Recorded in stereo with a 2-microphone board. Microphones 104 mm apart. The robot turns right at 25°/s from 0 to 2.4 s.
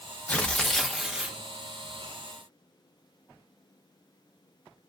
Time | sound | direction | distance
0.3 | tearing paper | 15° left (ahead or behind) | 0.5 m